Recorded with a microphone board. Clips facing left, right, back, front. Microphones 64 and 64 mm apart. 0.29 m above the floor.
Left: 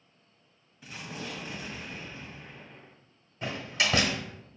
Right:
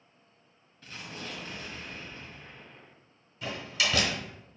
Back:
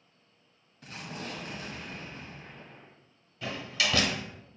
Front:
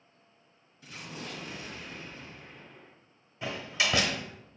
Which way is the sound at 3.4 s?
60° left.